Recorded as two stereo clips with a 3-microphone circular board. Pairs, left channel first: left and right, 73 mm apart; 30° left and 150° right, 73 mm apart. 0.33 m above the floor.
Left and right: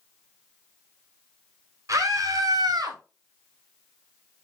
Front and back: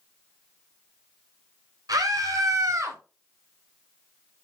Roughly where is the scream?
Behind right.